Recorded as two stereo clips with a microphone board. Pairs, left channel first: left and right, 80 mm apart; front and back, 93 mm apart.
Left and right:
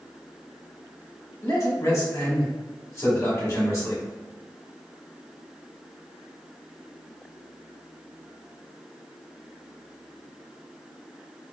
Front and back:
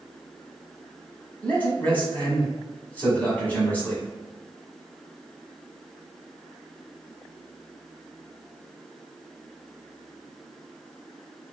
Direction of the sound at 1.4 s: 65° left.